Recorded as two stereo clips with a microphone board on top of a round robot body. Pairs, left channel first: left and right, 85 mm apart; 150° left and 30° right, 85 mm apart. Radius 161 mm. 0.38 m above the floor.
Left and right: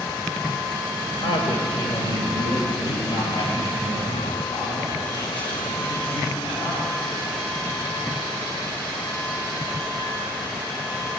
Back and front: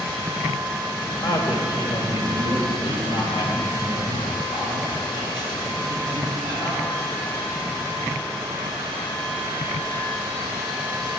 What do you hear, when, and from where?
1.2 s a man speaking: 110° left, 3 m; by 6.8 s 115° left, 6.5 m